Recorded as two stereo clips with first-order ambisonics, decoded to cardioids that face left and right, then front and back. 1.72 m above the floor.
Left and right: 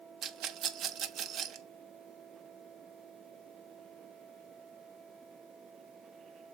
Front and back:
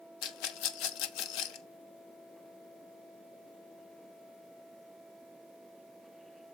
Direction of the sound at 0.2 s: 30° right.